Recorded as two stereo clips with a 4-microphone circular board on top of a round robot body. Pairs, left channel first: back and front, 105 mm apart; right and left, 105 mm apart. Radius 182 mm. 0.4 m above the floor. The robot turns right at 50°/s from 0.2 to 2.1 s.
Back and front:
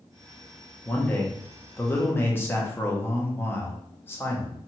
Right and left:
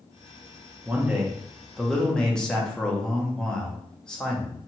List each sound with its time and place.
0.8 s a man speaking: 135° left, 0.9 m; by 4.6 s 160° right, 0.9 m